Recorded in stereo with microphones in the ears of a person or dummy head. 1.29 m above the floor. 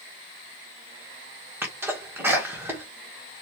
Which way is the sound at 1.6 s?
10° right (ahead or behind).